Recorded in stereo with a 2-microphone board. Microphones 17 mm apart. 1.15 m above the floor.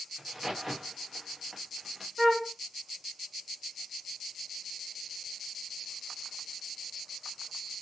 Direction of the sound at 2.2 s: 10° right (ahead or behind).